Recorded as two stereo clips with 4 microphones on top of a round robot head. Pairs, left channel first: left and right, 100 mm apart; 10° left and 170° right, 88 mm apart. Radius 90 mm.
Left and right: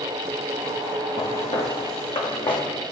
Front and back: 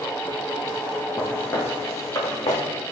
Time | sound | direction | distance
1.2 | footsteps | 75° left | 2 m